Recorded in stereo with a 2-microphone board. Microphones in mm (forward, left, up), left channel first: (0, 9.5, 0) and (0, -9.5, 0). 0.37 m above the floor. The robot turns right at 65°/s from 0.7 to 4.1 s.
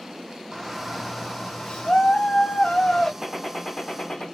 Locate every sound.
0.5 s a shout: straight ahead, 1.6 m; by 3.1 s 155° left, 1.6 m
3.2 s a gunshot: 10° right, 2.0 m; by 4.2 s 45° left, 2.0 m